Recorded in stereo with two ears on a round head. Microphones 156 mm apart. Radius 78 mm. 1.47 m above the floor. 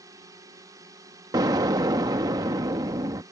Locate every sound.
0.0 s a drone: 20° right (ahead or behind)
1.3 s an explosion: 20° right (ahead or behind)